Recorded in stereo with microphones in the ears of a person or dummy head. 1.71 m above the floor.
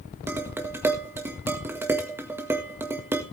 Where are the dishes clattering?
15° right (ahead or behind), 1.7 m.